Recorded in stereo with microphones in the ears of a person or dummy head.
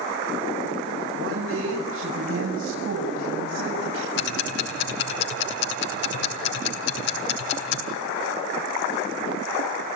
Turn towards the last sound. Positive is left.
turn(degrees=65)  # may be behind; listen again after turning